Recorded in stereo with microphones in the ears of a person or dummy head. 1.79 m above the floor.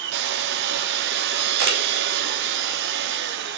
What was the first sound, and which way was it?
A machine running, 60° right (ahead or behind).